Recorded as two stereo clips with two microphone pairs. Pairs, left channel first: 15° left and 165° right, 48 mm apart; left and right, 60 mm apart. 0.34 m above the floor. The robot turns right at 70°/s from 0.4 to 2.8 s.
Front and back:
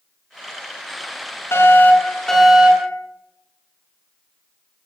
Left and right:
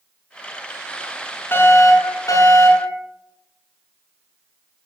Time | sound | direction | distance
1.5 | a fire alarm | 40° left | 6 m